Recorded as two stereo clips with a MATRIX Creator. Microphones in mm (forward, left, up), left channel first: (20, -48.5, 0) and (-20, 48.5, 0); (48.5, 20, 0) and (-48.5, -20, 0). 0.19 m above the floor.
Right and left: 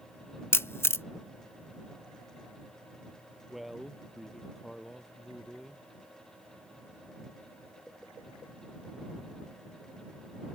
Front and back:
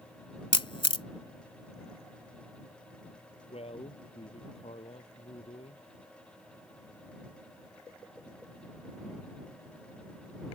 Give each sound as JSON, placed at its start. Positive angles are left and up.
{"t": 0.5, "sound": "a camera shutter", "azimuth_deg": -5}
{"t": 3.5, "sound": "a man speaking", "azimuth_deg": 25}